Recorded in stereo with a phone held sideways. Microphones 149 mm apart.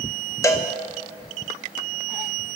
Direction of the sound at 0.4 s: 20° left (ahead or behind).